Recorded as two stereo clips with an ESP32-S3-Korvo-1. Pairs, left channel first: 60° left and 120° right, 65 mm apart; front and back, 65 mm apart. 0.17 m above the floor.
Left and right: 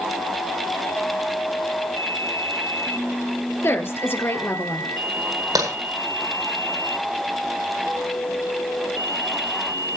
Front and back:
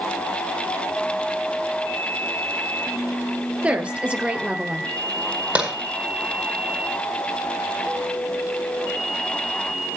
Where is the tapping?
110° right, 9.5 m.